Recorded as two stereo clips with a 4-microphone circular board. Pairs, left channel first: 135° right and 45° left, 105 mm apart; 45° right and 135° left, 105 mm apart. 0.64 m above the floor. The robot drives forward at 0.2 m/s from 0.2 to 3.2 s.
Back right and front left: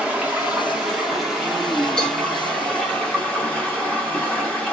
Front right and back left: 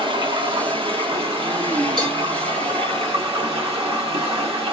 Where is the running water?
120° left, 0.8 m; by 4.7 s 150° left, 1.2 m.